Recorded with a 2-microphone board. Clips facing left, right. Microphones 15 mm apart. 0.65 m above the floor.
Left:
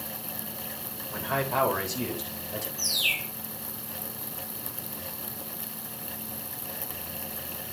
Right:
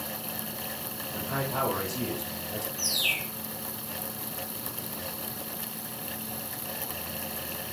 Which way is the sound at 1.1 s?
45° left (ahead or behind).